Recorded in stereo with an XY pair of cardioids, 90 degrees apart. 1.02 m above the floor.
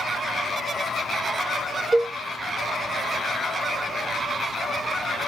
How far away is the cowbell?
About 0.9 m.